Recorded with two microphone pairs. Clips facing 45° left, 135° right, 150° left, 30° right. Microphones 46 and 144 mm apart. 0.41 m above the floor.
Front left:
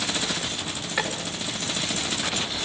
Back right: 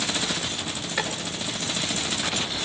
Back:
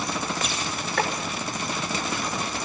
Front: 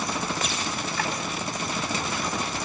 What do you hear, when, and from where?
1.0 s chopping: 125° left, 6 m